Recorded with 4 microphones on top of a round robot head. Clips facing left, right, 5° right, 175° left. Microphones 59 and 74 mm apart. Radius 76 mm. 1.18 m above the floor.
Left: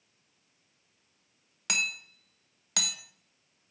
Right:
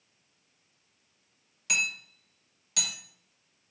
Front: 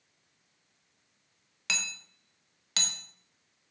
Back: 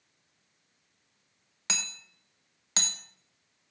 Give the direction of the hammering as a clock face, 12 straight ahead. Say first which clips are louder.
Right 1 dB, front 2 dB; 8 o'clock.